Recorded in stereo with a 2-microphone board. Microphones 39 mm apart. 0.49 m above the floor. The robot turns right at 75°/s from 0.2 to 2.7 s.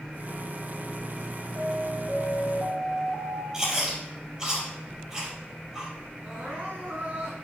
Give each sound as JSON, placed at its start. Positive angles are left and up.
{"t": 1.6, "sound": "an alarm", "azimuth_deg": -110, "distance_m": 2.0}
{"t": 3.5, "sound": "chewing", "side_deg": -20, "distance_m": 5.0}
{"t": 6.2, "sound": "crying", "side_deg": -55, "distance_m": 4.5}